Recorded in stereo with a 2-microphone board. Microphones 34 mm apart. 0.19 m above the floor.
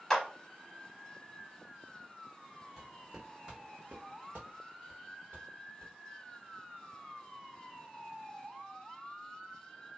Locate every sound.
0.1 s a clap: 10° left (ahead or behind), 1.0 m
2.8 s footsteps: centre (ahead or behind), 1.0 m; by 5.9 s 85° right, 1.6 m